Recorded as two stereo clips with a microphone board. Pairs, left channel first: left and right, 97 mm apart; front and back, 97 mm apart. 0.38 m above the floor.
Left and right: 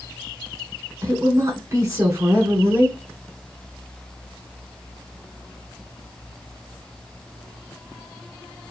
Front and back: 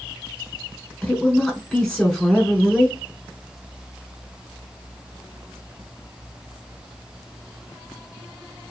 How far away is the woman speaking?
About 1.6 m.